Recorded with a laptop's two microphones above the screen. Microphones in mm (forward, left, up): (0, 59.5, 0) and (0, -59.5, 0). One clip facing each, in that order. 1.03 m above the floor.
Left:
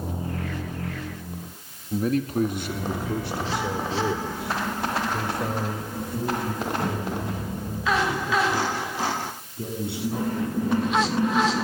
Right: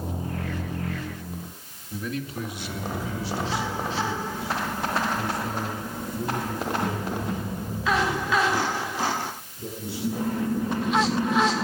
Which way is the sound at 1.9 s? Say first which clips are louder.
Left 8 dB; 40° left (ahead or behind).